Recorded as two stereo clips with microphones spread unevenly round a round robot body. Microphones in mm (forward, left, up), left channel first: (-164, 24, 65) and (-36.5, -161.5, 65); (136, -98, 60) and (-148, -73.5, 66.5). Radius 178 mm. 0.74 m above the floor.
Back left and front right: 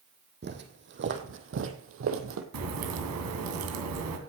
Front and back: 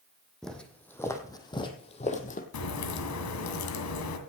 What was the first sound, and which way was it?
Footsteps, 95° right.